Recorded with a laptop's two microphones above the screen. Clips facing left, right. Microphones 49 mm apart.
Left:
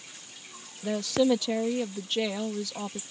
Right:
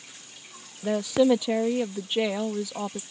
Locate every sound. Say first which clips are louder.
0.8 s a woman speaking: right 3 dB; 20° right (ahead or behind)